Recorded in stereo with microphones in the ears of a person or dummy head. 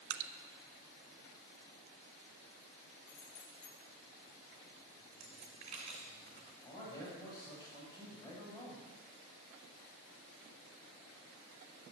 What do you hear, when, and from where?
0.1 s dripping: 70° right (ahead or behind), 0.5 m
3.1 s keys jangling: 45° left (ahead or behind), 2.5 m
5.1 s a dropped coin: 40° right (ahead or behind), 2 m
6.6 s a man speaking: 15° left (ahead or behind), 6.5 m